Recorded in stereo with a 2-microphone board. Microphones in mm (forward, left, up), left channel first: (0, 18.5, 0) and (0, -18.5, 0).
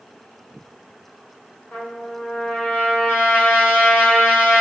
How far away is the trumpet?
About 2.5 m.